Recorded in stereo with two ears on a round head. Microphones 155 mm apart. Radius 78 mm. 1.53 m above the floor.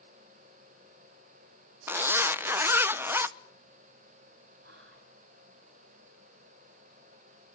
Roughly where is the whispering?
Right.